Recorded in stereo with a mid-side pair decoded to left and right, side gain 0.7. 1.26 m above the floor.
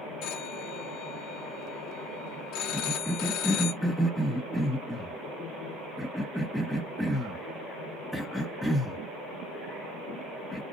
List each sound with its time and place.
0.2 s a phone ringing: 60° left, 2 m
2.7 s a cough: straight ahead, 1.0 m